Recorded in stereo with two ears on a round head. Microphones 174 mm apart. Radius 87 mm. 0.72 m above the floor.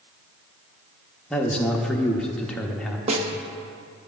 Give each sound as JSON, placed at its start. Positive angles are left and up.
{"t": 1.3, "sound": "a man speaking", "side_deg": 5, "distance_m": 0.7}
{"t": 3.1, "sound": "a snare drum", "side_deg": -35, "distance_m": 0.6}